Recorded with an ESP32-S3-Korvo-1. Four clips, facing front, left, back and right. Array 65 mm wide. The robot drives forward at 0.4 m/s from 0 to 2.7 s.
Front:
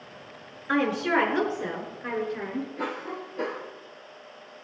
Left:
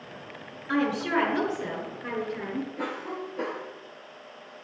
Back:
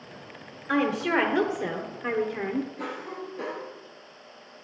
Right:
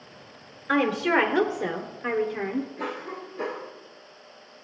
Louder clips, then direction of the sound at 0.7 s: Right 3 dB, even; 65° right.